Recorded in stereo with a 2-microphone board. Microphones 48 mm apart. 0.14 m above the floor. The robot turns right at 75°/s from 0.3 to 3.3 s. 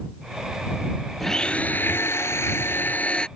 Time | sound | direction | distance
1.2 | a blender | 5° left | ?